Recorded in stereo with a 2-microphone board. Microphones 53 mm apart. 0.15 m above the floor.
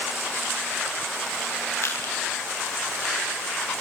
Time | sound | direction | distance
1.8 | crushing | 60° left (ahead or behind) | 9.5 m